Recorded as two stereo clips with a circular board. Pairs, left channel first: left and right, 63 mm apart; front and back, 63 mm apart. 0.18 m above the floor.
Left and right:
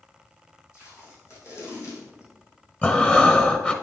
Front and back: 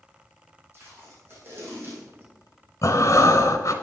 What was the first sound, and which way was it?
Tape being pulled, 125° left.